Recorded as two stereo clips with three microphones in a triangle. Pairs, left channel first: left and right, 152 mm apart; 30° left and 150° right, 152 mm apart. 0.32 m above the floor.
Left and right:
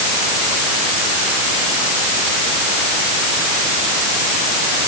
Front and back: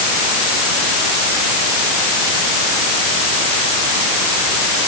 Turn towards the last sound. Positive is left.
No sound to turn to.